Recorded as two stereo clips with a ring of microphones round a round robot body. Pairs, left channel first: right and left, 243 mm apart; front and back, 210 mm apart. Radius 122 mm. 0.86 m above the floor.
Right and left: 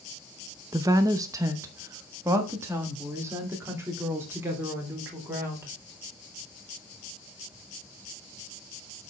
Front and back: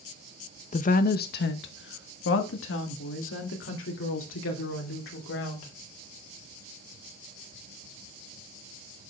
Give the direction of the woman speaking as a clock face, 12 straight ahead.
11 o'clock.